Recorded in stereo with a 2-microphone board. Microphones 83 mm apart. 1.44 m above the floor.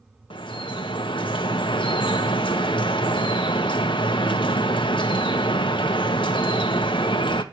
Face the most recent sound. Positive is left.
turn(degrees=80)